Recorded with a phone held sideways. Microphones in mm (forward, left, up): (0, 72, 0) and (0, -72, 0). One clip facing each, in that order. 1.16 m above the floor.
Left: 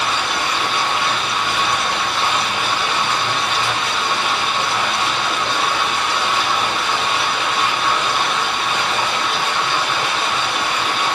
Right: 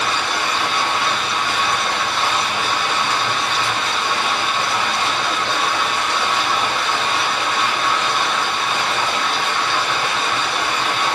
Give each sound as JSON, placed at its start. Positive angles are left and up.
{"t": 0.0, "sound": "running water", "side_deg": 10, "distance_m": 1.5}